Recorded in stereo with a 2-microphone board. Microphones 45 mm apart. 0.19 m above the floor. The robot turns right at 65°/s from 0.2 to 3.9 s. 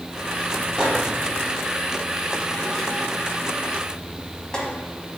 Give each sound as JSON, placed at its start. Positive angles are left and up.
{"t": 0.8, "sound": "a microwave", "side_deg": -15, "distance_m": 0.8}